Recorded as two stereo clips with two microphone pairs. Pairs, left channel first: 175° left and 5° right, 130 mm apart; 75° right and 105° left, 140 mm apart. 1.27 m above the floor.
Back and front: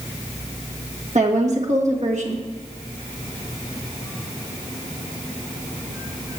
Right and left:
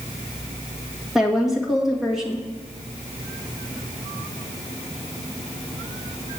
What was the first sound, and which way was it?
A woman speaking, 20° left.